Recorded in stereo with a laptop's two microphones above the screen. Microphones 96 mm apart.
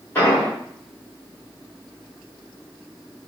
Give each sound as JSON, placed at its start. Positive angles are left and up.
{"t": 0.1, "sound": "an explosion", "side_deg": 20, "distance_m": 1.8}